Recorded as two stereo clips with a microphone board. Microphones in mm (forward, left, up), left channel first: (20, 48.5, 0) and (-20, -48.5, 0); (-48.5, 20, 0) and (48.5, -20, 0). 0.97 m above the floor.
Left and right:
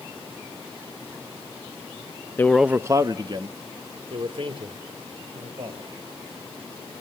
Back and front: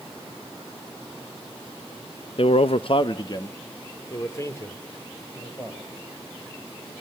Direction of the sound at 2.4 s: 135° left.